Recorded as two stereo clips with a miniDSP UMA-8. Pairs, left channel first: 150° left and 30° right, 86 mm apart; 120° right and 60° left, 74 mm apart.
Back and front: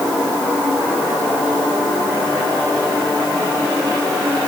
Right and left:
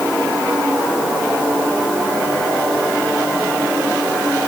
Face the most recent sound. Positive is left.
No sound to turn to.